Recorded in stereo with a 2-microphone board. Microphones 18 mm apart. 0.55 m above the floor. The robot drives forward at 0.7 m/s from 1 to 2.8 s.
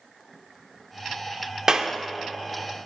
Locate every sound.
1.7 s a clap: 25° right (ahead or behind), 1.0 m; by 1.9 s 20° right (ahead or behind), 1.2 m